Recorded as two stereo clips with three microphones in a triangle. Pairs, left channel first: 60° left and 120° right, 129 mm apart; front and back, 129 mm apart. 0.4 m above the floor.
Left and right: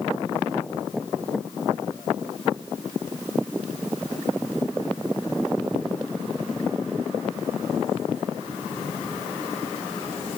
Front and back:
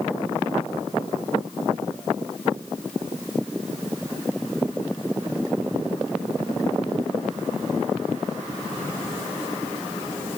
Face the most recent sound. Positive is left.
No sound to turn to.